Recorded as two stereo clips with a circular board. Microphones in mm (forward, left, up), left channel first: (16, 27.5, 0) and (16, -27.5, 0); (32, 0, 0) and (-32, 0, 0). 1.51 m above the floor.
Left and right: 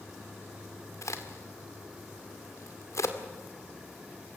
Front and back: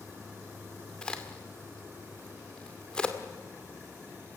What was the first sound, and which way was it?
A crack, 75° left.